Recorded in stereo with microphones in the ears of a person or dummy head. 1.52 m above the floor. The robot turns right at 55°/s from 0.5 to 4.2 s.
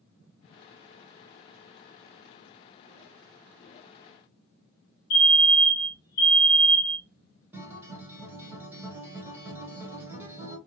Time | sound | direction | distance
5.1 | a fire alarm | 50° left (ahead or behind) | 1.1 m
7.5 | a guitar | 10° right (ahead or behind) | 1.2 m